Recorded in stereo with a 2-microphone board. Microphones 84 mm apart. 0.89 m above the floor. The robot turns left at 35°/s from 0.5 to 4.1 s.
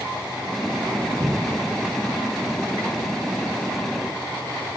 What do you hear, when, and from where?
1.2 s a cupboard door: 40° right (ahead or behind), 0.7 m; by 1.7 s 30° right (ahead or behind), 0.7 m